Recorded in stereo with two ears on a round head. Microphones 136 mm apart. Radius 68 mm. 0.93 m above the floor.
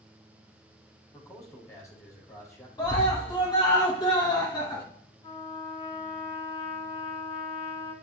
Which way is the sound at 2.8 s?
30° left (ahead or behind).